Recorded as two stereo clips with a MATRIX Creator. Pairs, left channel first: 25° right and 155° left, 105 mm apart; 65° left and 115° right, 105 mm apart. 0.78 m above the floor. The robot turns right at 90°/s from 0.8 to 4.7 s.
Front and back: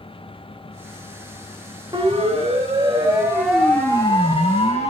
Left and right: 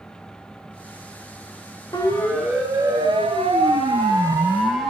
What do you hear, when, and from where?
1.9 s a siren: 110° left, 5.5 m; by 4.9 s 20° right, 4.5 m